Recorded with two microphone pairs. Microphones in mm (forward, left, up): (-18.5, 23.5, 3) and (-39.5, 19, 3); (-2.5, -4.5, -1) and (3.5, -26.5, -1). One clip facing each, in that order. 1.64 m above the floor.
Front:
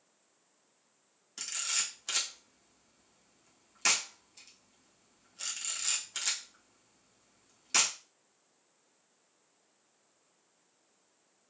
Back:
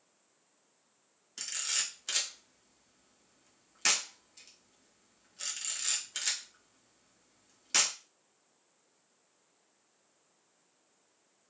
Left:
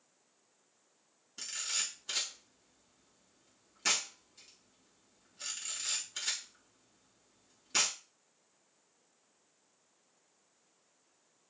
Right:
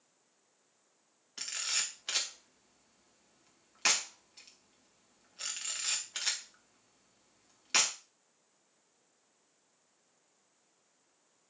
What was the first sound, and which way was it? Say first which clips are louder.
A camera shutter: even, right 2 dB; 80° right.